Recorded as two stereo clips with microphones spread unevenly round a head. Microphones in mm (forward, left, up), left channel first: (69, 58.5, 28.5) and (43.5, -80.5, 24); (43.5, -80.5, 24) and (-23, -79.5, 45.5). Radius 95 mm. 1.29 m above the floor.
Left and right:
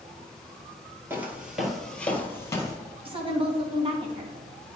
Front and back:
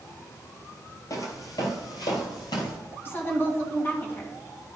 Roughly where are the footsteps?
Ahead right.